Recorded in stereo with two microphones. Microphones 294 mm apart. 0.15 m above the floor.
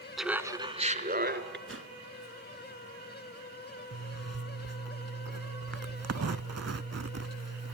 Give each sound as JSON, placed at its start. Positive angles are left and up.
{"t": 0.2, "sound": "laughter", "side_deg": 0, "distance_m": 1.3}
{"t": 1.7, "sound": "a whoosh", "side_deg": -50, "distance_m": 1.2}
{"t": 3.9, "sound": "a zipper", "side_deg": -55, "distance_m": 0.5}